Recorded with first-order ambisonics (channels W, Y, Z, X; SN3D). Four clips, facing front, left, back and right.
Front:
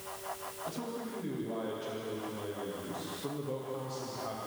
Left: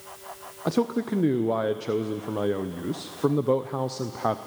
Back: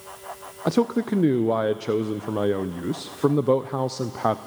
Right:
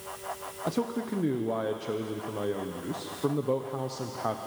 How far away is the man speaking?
About 0.6 m.